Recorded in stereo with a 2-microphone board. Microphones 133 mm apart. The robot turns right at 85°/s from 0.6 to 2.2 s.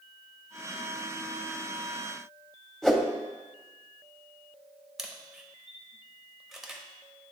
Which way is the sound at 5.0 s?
5° right (ahead or behind).